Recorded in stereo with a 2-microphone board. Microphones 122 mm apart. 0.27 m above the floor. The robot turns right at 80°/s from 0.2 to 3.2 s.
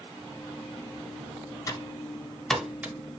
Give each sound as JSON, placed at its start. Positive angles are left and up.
{"t": 1.7, "sound": "typing on a keyboard", "side_deg": 30, "distance_m": 0.9}